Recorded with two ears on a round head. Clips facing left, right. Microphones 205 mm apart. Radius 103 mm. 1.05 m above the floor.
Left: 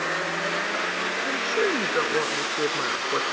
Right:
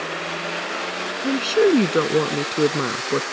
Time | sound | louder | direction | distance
1.2 | a woman speaking | right 10 dB | 50° right (ahead or behind) | ?